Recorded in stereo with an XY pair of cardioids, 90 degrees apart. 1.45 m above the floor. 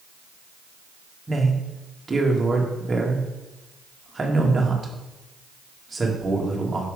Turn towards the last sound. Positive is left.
turn(degrees=-25)